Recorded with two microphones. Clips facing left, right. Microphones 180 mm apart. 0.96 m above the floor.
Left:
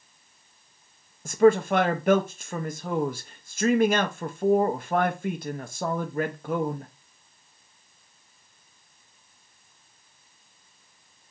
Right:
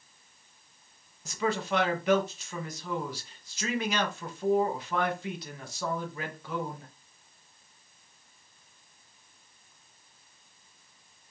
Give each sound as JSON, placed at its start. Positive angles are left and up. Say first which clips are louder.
{"t": 1.2, "sound": "a man speaking", "louder": "left 12 dB", "side_deg": 50, "distance_m": 0.6}